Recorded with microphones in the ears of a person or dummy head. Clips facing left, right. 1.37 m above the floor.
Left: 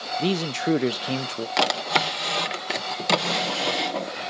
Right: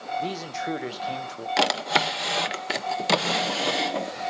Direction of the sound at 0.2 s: 45° left (ahead or behind).